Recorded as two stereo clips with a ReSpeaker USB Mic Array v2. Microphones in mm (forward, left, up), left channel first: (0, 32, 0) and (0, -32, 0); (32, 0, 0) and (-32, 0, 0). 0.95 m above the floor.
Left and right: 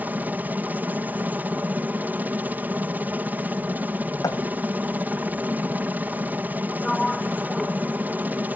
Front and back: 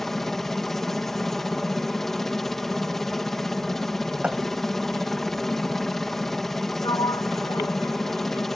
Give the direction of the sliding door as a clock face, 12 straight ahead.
12 o'clock.